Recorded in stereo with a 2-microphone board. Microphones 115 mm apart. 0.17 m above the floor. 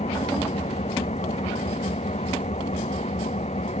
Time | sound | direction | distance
0.0 | an engine running | 75° left (ahead or behind) | ?